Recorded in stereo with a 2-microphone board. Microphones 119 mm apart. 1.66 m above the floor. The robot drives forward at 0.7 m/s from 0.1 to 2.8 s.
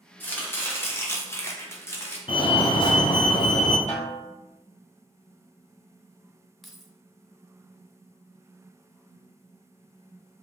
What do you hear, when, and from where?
0.2 s chopping: 15° left (ahead or behind), 1.3 m; by 2.2 s 20° left (ahead or behind), 1.0 m
2.3 s a fire alarm: 45° left (ahead or behind), 0.7 m
3.9 s a snare drum: 75° left (ahead or behind), 1.5 m
6.6 s keys jangling: centre (ahead or behind), 0.6 m